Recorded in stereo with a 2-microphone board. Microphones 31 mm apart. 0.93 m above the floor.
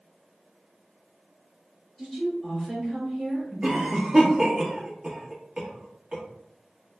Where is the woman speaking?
15° right (ahead or behind), 2.0 m.